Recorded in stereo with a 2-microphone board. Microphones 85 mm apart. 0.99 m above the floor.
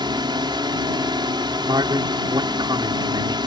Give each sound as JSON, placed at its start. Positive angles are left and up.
{"t": 0.0, "sound": "a drone", "side_deg": -60}
{"t": 1.6, "sound": "a man speaking", "side_deg": -60}